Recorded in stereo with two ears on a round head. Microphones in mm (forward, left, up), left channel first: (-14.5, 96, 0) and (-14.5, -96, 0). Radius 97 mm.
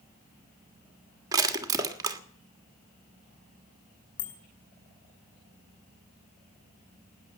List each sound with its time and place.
1.3 s crushing: 15° right (ahead or behind), 1.5 m
4.2 s a bicycle bell: 75° left (ahead or behind), 5 m